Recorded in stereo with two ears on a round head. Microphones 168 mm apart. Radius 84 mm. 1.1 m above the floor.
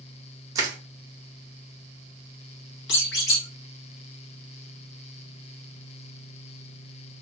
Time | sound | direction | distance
0.6 | crushing | 20° right (ahead or behind) | 0.7 m
2.9 | a squeak | 60° left (ahead or behind) | 1.0 m